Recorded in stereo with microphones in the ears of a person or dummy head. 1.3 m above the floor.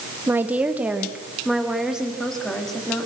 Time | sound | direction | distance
0.3 | a woman speaking | 10° right (ahead or behind) | 1.1 m